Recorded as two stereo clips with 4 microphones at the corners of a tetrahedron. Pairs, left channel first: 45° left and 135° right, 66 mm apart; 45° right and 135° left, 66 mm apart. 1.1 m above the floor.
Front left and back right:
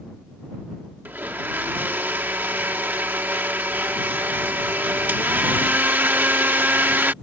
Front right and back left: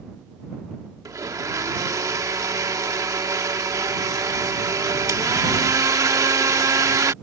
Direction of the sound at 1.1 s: 165° left.